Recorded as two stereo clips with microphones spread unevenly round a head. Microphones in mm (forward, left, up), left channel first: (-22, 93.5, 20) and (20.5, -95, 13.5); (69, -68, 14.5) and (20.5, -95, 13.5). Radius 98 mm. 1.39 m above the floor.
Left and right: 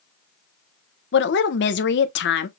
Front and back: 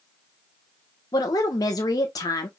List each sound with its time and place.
1.1 s a woman speaking: 65° left, 0.9 m